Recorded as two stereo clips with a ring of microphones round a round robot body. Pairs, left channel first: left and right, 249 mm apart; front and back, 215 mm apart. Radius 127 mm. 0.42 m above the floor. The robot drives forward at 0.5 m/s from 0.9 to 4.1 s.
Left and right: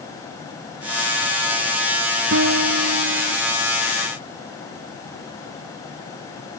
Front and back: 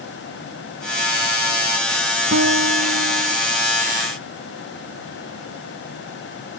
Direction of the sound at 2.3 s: 135° right.